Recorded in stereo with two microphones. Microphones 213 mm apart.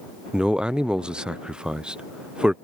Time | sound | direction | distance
0.3 | a man speaking | 5° right (ahead or behind) | ?